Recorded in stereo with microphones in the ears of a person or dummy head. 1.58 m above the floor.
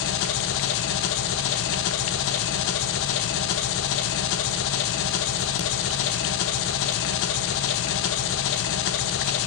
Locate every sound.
0.0 s an engine running: 70° left (ahead or behind), 1.4 m